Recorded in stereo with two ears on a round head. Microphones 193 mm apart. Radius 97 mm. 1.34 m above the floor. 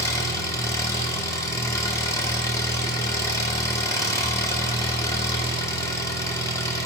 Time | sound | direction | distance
0.0 | an engine running | 15° left (ahead or behind) | 0.9 m